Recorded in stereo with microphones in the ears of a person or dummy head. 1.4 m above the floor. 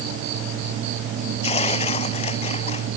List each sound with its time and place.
1.4 s tearing paper: 30° left (ahead or behind)